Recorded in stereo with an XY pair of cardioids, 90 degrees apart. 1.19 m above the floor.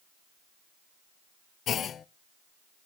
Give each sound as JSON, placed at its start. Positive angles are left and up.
{"t": 1.7, "sound": "a clunk", "azimuth_deg": 65, "distance_m": 0.5}